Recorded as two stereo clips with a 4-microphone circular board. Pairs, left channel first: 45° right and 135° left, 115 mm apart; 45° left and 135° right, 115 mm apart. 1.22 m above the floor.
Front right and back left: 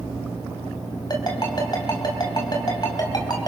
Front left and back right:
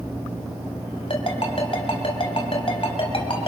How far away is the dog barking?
No dog barking in this recording.